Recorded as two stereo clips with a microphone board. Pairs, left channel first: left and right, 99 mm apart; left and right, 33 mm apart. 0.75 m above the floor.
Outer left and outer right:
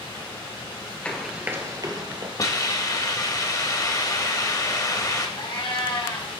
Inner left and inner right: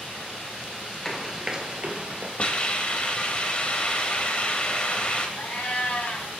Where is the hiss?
35° left (ahead or behind), 0.7 m.